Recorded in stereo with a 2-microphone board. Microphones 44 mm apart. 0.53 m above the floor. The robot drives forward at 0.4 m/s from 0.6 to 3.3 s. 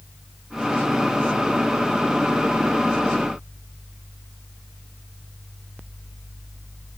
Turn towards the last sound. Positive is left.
No sound to turn to.